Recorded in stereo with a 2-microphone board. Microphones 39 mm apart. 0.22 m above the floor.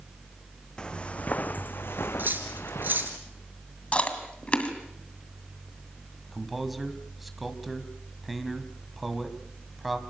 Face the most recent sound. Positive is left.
turn(degrees=-5)  # may be behind; listen again after turning